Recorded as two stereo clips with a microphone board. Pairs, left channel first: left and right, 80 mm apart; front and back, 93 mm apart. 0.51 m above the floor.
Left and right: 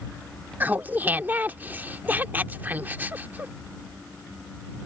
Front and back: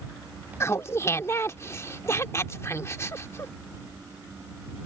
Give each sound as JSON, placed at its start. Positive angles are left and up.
{"t": 0.6, "sound": "laughter", "azimuth_deg": -40}